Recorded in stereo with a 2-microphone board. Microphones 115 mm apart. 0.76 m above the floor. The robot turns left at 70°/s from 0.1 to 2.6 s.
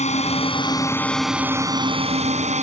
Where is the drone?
80° left; by 2.6 s 95° right.